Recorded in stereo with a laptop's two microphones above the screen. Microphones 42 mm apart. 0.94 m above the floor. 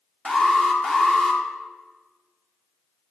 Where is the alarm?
15° left (ahead or behind), 1.4 m.